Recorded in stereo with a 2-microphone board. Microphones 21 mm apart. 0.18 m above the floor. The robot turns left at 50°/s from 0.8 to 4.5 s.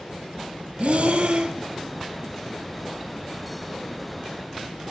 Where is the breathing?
90° right, 0.6 m; by 1.6 s 130° right, 0.6 m.